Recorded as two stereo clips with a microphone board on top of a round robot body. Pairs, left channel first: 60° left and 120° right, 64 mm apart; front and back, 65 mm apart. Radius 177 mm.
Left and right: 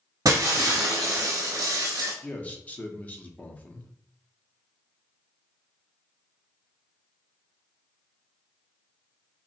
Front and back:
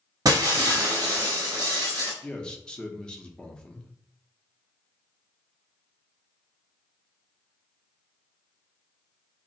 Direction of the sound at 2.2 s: 50° left.